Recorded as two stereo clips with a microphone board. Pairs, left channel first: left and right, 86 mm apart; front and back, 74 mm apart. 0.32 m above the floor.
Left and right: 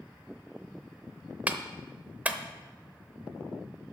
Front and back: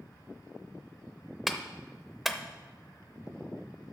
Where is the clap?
95° right, 0.7 m.